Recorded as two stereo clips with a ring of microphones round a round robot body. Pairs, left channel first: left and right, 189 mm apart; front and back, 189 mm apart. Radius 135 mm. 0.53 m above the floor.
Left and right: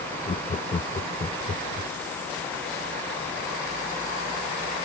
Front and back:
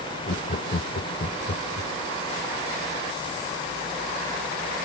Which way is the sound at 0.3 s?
35° left.